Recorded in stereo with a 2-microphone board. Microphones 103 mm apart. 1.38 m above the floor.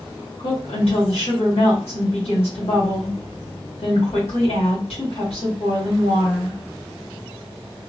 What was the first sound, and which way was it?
A woman speaking, 85° left.